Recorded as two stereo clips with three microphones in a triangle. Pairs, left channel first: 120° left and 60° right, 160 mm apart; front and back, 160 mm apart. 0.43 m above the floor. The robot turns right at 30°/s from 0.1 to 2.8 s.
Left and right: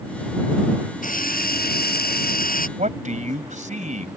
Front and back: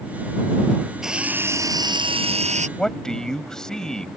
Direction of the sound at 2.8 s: 85° right.